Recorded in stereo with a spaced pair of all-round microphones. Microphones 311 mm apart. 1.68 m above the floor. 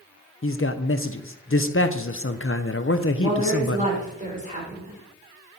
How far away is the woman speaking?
About 4.5 m.